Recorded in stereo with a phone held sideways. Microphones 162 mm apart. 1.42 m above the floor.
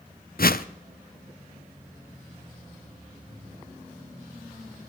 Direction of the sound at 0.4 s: 70° left (ahead or behind).